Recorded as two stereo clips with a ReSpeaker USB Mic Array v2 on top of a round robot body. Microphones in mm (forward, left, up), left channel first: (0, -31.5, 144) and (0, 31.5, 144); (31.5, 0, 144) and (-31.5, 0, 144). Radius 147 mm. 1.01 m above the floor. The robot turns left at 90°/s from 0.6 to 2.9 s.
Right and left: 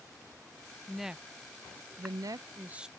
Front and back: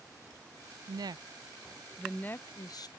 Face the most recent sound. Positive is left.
turn(degrees=5)